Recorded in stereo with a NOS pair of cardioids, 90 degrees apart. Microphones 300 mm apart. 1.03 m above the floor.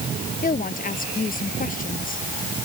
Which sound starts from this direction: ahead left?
A woman speaking, at 0.4 s.